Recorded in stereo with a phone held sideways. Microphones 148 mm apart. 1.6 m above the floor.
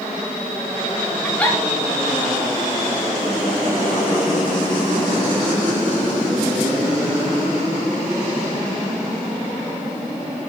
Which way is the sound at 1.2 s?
10° left (ahead or behind).